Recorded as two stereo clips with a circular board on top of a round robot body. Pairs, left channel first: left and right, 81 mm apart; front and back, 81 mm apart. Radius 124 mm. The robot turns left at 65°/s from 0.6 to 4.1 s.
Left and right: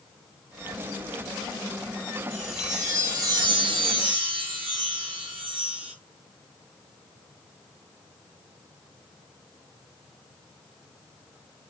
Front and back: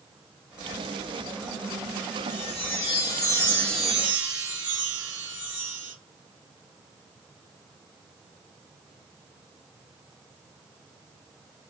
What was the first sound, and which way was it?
A chime, 10° left.